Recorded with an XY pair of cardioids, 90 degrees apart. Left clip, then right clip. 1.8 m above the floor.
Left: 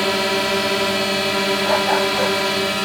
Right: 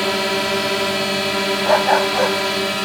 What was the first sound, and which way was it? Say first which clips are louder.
A drone: even; 5° right.